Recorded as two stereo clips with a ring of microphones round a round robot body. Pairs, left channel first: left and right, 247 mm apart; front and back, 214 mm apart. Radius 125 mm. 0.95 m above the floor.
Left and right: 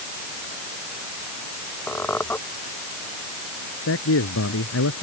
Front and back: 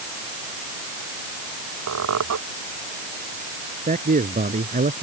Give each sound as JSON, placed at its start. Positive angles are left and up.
{"t": 1.9, "sound": "a squeak", "azimuth_deg": 175}
{"t": 3.9, "sound": "a man speaking", "azimuth_deg": 125}